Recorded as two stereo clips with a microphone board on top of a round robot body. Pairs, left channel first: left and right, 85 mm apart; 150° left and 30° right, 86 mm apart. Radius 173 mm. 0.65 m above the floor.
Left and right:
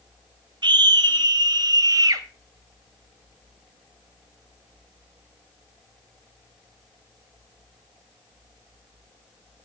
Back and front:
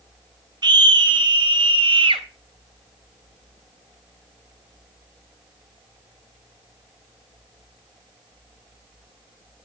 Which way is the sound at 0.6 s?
60° right.